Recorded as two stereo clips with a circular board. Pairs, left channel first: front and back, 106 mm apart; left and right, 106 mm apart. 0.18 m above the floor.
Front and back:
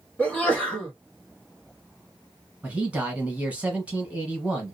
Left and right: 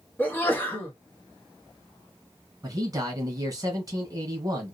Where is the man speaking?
110° right, 1.2 m.